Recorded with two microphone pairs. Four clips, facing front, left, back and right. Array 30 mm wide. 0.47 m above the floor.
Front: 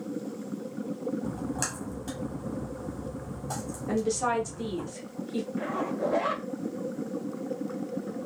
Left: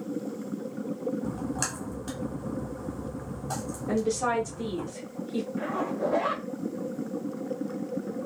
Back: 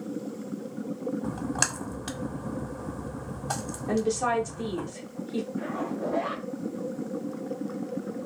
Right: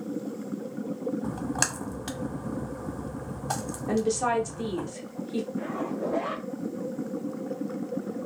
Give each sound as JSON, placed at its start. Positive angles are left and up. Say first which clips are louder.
{"t": 1.2, "sound": "a splash", "louder": "right 2 dB, back 3 dB", "azimuth_deg": -140, "distance_m": 0.6}
{"t": 3.9, "sound": "a woman speaking", "louder": "right 1 dB, back 1 dB", "azimuth_deg": -105, "distance_m": 0.8}
{"t": 5.6, "sound": "a zipper", "louder": "left 2 dB, front 1 dB", "azimuth_deg": 30, "distance_m": 0.9}